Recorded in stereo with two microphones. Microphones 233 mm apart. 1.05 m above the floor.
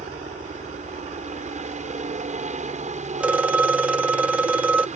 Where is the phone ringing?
5° right (ahead or behind).